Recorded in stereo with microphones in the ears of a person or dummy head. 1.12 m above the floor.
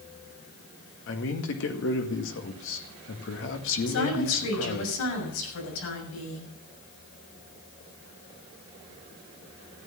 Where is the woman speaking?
90° left, 6 m.